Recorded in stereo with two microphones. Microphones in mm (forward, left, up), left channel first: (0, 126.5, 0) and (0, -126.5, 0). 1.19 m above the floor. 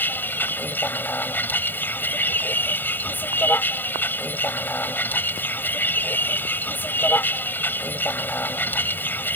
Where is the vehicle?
5° left (ahead or behind).